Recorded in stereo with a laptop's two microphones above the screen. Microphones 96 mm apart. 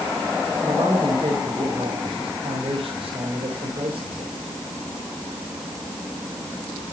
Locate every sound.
0.6 s a man speaking: 65° right (ahead or behind), 5 m